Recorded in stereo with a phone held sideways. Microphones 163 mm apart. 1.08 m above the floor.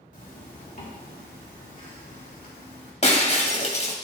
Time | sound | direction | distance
0.1 | a zipper | 50° left (ahead or behind) | 4 m
3.0 | breaking glass | 45° left (ahead or behind) | 1.6 m